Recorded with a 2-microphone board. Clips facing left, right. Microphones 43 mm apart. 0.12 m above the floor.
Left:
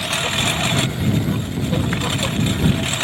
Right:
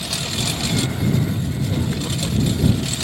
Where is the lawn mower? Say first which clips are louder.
Left 5 dB; 45° left (ahead or behind).